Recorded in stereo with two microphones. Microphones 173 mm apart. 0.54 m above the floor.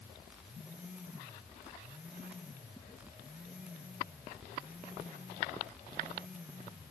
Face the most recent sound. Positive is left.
No sound to turn to.